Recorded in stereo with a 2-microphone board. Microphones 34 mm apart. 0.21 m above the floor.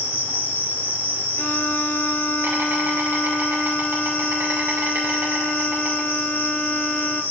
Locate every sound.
0.0 s an insect: 75° right (ahead or behind), 3.5 m
1.4 s a violin: 60° left (ahead or behind), 1.1 m